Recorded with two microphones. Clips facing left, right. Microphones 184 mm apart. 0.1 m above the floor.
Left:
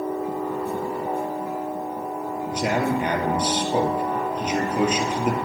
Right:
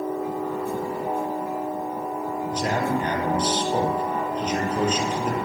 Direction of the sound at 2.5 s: 10° left (ahead or behind).